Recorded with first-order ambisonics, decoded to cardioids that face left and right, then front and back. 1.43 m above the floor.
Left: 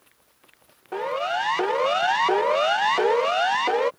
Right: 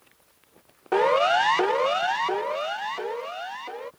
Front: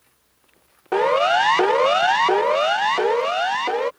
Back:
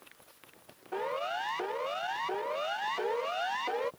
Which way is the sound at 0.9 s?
30° right.